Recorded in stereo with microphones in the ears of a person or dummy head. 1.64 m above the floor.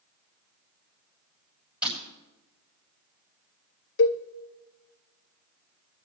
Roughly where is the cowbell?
Left.